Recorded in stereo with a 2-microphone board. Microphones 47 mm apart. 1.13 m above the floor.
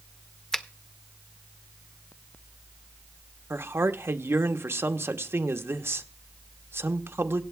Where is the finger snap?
10° left (ahead or behind), 0.6 m.